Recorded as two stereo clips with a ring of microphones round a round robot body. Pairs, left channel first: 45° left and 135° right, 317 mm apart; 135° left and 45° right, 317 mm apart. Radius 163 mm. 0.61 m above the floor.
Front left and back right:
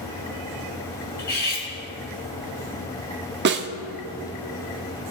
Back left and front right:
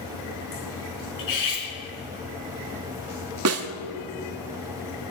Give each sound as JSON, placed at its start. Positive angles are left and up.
{"t": 1.2, "sound": "cutlery clinking", "azimuth_deg": 105, "distance_m": 4.5}
{"t": 3.5, "sound": "a snare drum", "azimuth_deg": -80, "distance_m": 1.0}